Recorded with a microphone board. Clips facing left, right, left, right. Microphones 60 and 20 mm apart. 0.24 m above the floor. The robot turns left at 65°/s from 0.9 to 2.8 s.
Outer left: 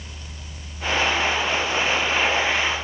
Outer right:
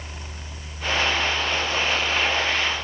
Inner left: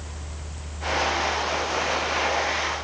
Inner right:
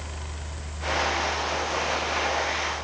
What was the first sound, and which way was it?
Only background noise.